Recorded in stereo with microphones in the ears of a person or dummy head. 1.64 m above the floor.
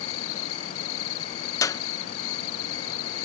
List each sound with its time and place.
0.0 s an insect: 85° left
1.6 s a clap: 15° left (ahead or behind)